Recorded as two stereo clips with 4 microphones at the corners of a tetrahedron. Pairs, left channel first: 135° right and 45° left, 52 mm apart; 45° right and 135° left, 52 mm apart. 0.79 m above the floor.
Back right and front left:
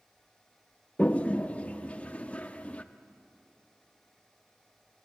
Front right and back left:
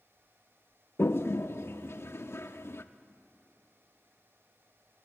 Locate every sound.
1.0 s a toilet flushing: 75° right, 0.7 m